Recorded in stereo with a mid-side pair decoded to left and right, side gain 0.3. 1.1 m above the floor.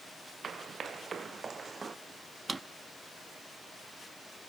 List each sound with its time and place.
0.4 s running footsteps: 65° right, 4.5 m; by 2.0 s 50° right, 2.5 m
2.5 s a drawer: 40° right, 1.1 m